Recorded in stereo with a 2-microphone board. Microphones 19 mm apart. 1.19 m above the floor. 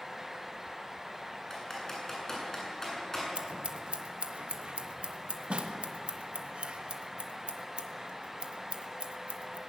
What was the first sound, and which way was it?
Typing on a keyboard, 20° left (ahead or behind).